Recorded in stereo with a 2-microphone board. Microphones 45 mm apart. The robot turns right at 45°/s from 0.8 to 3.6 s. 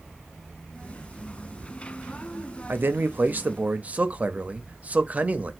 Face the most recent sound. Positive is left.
turn(degrees=-45)